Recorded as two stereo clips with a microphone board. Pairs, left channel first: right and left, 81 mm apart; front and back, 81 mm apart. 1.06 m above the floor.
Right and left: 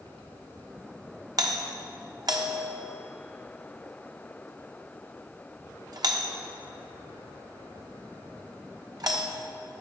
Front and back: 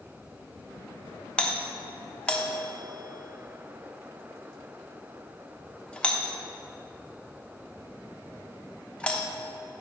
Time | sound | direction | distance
1.4 | a doorbell | 75° left | 1.0 m